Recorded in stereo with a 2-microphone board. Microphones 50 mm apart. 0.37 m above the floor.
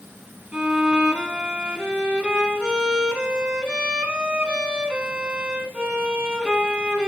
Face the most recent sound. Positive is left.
turn(degrees=-20)  # may be behind; listen again after turning